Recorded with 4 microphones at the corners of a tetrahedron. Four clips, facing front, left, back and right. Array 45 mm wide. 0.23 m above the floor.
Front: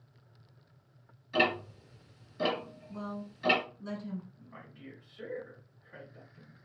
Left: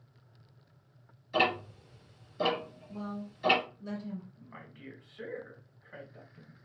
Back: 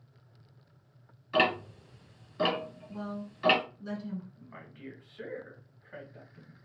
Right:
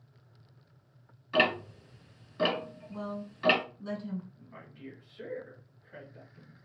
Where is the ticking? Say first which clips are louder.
Right 2 dB, back 2 dB; 120° right, 2.0 m.